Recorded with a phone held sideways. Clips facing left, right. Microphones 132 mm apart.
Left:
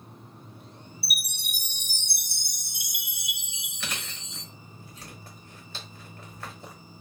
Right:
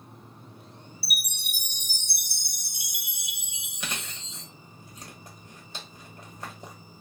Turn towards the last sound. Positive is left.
turn(degrees=-15)  # may be behind; listen again after turning